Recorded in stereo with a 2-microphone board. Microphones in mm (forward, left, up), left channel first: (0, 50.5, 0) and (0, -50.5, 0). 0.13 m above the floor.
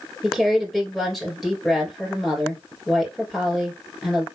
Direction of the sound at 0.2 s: Centre (ahead or behind).